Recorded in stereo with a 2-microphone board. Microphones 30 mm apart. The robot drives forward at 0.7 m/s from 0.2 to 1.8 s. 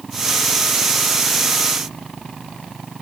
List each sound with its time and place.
Only background noise.